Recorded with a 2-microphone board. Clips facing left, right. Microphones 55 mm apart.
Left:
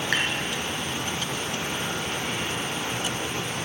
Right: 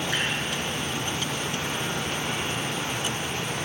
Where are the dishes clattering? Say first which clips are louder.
Left 4 dB; 85° left, 3.5 m.